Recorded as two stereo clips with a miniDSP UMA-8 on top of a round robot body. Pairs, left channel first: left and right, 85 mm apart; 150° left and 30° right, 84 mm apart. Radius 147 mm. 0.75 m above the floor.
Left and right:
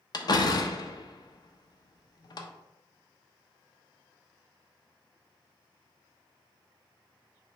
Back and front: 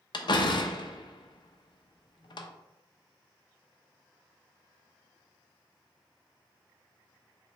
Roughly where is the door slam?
Behind left.